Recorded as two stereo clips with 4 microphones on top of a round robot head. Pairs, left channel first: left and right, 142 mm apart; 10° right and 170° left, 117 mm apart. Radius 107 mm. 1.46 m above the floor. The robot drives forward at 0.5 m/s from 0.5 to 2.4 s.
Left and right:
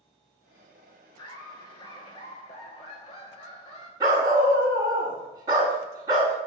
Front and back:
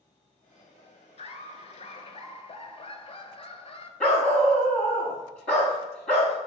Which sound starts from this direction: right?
A dog barking, at 4.0 s.